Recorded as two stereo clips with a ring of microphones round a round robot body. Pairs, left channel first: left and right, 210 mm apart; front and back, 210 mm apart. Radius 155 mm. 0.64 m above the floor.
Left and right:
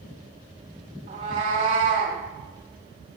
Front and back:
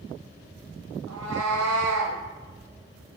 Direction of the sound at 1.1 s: 160° right.